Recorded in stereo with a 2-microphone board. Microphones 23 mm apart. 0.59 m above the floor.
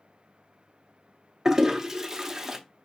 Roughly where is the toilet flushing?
Right.